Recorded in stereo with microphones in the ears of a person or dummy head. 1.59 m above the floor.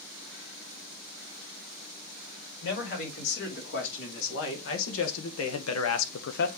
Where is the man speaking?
60° left (ahead or behind), 4 m; by 6.5 s 55° left (ahead or behind), 0.8 m.